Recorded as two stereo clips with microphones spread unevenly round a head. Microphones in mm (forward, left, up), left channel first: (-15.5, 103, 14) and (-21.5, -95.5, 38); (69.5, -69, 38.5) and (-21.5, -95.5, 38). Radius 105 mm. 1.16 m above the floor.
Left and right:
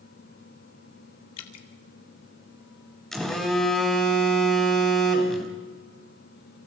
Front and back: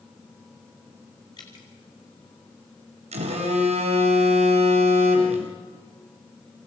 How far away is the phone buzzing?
About 3.5 m.